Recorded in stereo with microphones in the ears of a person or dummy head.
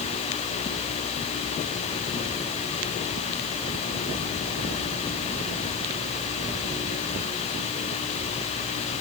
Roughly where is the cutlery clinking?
No cutlery clinking in this recording.